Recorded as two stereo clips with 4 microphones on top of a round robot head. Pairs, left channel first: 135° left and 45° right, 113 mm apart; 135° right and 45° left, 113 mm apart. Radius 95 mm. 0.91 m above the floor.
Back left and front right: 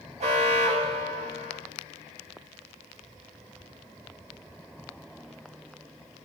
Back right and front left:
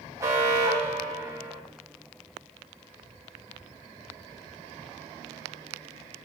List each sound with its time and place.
0.2 s an alarm: 20° right, 5.5 m